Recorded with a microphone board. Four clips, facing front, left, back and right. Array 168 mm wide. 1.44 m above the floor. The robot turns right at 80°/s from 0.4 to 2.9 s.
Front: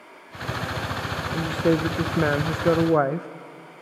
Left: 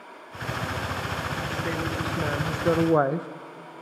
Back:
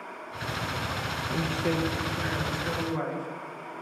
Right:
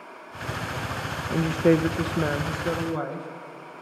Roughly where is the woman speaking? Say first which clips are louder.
Right 15 dB, front 7 dB; right.